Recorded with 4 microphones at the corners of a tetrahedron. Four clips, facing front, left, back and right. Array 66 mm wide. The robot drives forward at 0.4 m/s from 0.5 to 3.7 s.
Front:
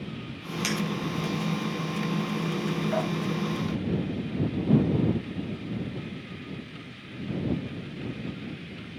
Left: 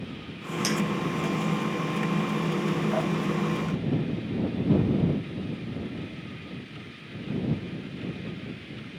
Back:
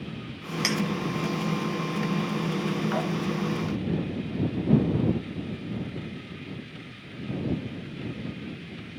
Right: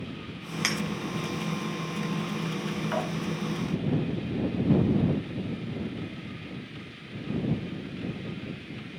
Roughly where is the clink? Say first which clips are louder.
Left 3 dB, back 2 dB; right.